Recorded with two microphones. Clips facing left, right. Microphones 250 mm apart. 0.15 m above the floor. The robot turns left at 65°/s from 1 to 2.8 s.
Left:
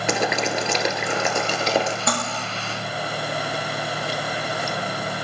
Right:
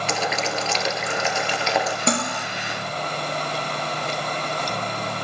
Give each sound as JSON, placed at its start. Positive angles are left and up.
{"t": 0.1, "sound": "boiling", "azimuth_deg": 90, "distance_m": 1.7}
{"t": 2.1, "sound": "cutlery clinking", "side_deg": -30, "distance_m": 1.6}